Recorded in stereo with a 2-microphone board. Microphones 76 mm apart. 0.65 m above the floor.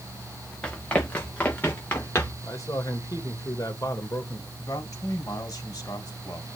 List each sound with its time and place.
0.6 s running footsteps: 20° left (ahead or behind), 3.5 m; by 2.3 s 30° left (ahead or behind), 3.5 m
2.4 s a man speaking: 50° left (ahead or behind), 1.8 m
4.6 s a man speaking: 50° left (ahead or behind), 4 m